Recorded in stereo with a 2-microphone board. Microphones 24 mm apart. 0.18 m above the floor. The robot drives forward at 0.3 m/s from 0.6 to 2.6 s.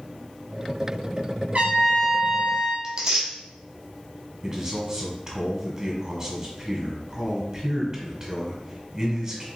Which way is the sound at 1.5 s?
65° right (ahead or behind).